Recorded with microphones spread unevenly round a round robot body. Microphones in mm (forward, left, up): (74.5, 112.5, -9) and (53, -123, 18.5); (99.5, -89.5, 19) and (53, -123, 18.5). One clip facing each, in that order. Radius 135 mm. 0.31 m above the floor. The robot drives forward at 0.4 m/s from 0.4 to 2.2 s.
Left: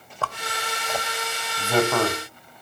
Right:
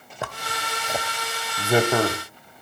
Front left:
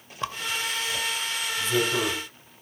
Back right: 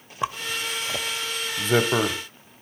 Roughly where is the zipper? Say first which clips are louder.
Left 1 dB, back right 2 dB; behind.